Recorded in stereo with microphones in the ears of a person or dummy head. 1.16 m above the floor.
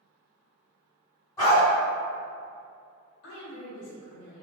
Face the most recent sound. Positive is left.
turn(degrees=75)  # may be behind; listen again after turning